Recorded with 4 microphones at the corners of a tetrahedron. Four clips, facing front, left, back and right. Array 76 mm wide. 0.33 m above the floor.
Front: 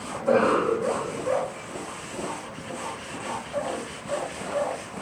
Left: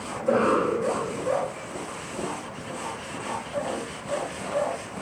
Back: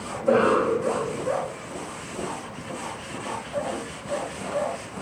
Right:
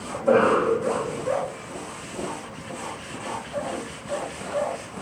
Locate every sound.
0.1 s a cough: 75° right, 2 m